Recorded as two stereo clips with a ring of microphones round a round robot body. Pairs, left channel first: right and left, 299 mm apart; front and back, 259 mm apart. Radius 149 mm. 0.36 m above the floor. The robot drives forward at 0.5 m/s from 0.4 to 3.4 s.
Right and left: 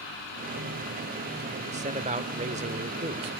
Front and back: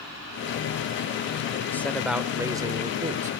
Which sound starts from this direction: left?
A man speaking, at 1.7 s.